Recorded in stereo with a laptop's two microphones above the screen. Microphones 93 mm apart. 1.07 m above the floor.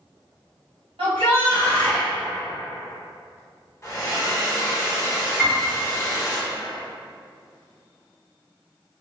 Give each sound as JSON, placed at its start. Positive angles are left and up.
{"t": 1.0, "sound": "a shout", "side_deg": -75, "distance_m": 1.4}
{"t": 3.8, "sound": "a hair dryer", "side_deg": 30, "distance_m": 0.8}
{"t": 5.4, "sound": "a piano", "side_deg": -10, "distance_m": 1.0}